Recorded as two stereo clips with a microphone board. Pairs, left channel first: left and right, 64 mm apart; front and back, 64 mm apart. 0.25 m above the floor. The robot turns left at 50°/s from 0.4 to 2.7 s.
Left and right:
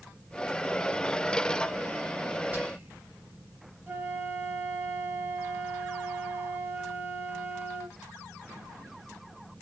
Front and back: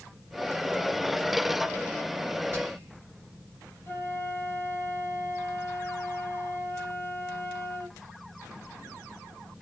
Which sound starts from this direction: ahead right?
A flute, at 3.9 s.